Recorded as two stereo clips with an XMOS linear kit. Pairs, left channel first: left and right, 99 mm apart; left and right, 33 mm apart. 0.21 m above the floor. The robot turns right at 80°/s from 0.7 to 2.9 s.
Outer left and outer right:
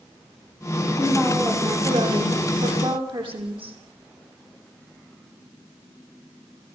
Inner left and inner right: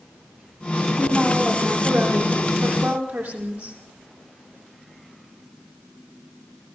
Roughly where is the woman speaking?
Behind left.